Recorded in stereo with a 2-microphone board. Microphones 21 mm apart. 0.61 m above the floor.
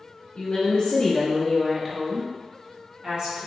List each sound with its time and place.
0.3 s a woman speaking: 45° left (ahead or behind), 1.0 m; by 3.5 s 60° right (ahead or behind), 1.2 m